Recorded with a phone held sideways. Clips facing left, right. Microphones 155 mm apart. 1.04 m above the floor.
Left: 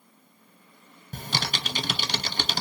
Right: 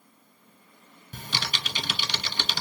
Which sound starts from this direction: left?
Typing on a keyboard, at 1.1 s.